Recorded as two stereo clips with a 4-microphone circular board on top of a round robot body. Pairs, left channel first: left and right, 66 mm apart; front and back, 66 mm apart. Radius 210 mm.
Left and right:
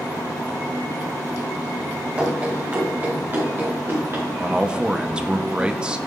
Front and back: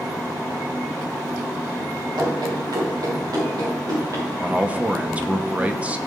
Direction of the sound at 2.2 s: 160° right.